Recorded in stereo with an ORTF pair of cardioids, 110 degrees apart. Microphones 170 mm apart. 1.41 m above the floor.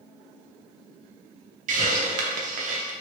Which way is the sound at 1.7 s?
55° right.